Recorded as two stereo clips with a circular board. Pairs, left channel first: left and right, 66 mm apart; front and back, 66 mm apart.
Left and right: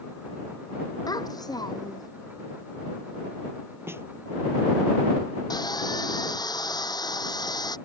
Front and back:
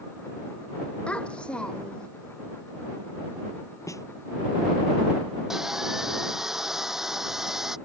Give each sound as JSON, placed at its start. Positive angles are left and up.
{"t": 1.1, "sound": "a child speaking", "azimuth_deg": 70}
{"t": 3.9, "sound": "a snare drum", "azimuth_deg": -40}
{"t": 5.5, "sound": "sawing", "azimuth_deg": 95}